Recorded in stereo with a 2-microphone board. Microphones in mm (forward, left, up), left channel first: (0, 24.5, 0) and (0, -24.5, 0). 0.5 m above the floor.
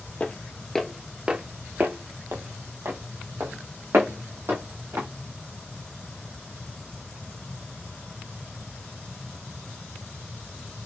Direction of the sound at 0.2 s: 30° left (ahead or behind).